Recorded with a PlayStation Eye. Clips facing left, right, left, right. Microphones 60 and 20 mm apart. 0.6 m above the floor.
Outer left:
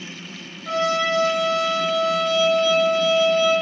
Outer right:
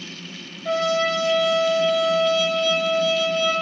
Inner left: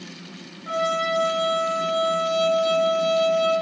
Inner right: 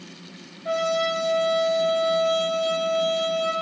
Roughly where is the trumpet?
Right.